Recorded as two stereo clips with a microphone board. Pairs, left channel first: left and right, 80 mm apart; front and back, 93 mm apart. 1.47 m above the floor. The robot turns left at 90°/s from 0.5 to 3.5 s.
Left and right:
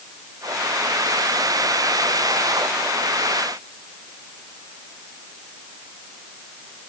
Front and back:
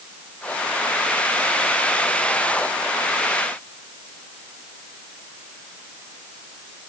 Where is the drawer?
I don't hear a drawer.